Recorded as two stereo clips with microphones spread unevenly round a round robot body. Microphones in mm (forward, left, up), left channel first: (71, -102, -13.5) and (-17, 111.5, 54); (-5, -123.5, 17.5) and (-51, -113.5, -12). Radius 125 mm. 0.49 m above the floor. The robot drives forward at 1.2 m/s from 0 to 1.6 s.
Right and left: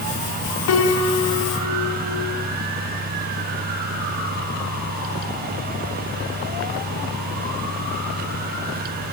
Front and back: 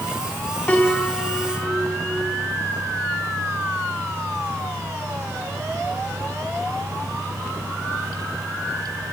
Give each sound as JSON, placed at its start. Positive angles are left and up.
{"t": 0.7, "sound": "a piano", "azimuth_deg": -75, "distance_m": 4.0}